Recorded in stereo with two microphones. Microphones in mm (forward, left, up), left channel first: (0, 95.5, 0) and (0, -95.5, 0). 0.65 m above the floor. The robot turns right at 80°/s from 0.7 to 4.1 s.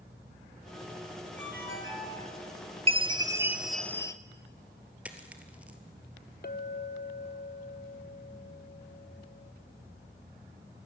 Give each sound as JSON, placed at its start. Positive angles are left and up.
{"t": 1.4, "sound": "a ringtone", "azimuth_deg": 60, "distance_m": 5.5}
{"t": 2.9, "sound": "a chime", "azimuth_deg": -65, "distance_m": 0.9}
{"t": 5.0, "sound": "a dropped coin", "side_deg": -10, "distance_m": 1.9}
{"t": 6.4, "sound": "a clink", "side_deg": 50, "distance_m": 0.9}